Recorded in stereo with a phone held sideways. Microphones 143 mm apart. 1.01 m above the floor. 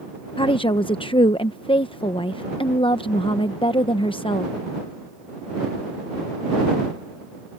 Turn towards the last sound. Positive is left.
turn(degrees=40)  # may be behind; listen again after turning